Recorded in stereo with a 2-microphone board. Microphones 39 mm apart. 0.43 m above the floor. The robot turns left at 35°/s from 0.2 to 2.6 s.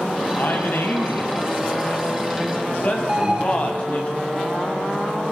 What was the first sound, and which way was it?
A man speaking, 120° left.